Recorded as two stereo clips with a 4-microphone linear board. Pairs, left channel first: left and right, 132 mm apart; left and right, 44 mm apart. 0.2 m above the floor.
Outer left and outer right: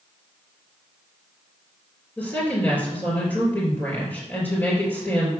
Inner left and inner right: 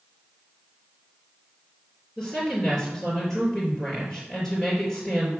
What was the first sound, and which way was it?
A woman speaking, 10° left (ahead or behind).